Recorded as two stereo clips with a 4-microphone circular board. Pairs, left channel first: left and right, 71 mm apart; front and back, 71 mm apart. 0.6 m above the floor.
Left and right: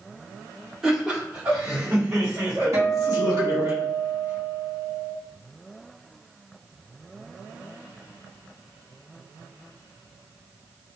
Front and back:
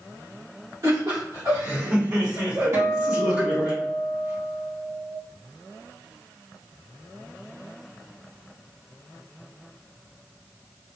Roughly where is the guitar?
Behind right.